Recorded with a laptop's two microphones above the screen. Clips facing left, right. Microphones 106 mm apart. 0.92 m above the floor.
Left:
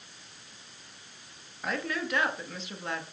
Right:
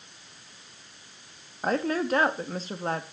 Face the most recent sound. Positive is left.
turn(degrees=-40)  # may be behind; listen again after turning